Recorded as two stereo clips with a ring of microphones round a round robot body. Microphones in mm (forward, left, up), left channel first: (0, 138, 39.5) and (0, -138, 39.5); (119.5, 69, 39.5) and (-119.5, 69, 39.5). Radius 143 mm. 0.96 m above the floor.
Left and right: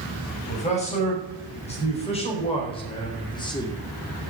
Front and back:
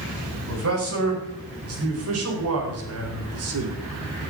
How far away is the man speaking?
About 7 m.